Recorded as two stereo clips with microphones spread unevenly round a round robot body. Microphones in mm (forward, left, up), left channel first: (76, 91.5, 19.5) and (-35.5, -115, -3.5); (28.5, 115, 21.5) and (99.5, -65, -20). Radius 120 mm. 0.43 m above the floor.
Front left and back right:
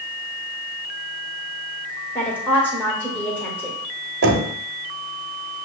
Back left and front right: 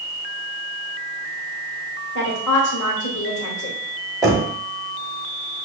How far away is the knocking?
About 1.0 m.